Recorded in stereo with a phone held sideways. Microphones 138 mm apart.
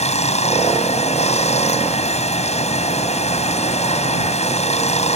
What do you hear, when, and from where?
0.0 s running water: 50° left (ahead or behind)